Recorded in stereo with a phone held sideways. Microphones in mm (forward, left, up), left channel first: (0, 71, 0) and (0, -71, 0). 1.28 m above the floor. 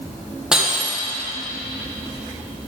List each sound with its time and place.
0.5 s breaking glass: 5° right (ahead or behind), 3.5 m